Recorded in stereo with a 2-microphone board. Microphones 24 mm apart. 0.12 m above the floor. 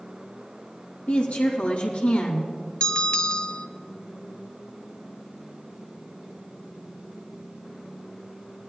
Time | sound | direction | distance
1.1 | a woman speaking | 70° left (ahead or behind) | 4 m
2.8 | a bell | 40° left (ahead or behind) | 0.8 m